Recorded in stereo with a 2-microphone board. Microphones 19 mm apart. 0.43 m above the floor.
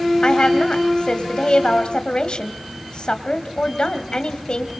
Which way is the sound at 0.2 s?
55° left (ahead or behind).